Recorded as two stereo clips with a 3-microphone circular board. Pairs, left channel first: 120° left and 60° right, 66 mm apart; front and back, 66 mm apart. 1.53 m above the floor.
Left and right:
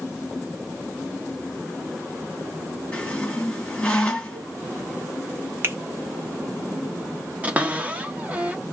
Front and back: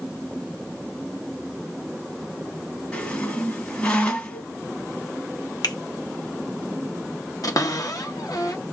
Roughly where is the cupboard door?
Ahead.